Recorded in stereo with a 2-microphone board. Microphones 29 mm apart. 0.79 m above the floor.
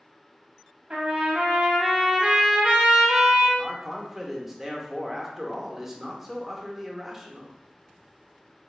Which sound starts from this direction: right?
A trumpet, at 0.9 s.